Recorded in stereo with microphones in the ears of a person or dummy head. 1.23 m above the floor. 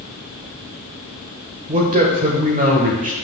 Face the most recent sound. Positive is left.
turn(degrees=-35)  # may be behind; listen again after turning